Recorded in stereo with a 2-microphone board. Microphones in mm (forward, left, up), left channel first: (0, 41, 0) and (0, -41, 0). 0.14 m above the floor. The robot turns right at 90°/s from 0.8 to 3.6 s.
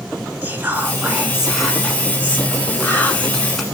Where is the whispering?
25° right (ahead or behind), 1.1 m; by 3.6 s centre (ahead or behind), 1.1 m.